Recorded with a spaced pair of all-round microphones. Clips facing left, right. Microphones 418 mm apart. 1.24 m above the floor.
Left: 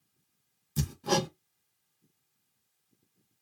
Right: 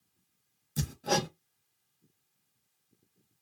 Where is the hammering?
15° left (ahead or behind), 0.5 m.